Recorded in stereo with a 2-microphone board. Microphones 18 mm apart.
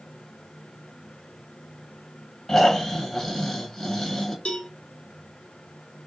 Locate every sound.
2.5 s snoring: 35° left (ahead or behind), 1.2 m
4.5 s a cowbell: 55° left (ahead or behind), 0.7 m